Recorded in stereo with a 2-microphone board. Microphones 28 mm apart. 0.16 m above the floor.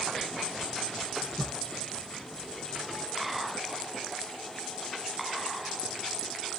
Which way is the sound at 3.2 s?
Centre (ahead or behind).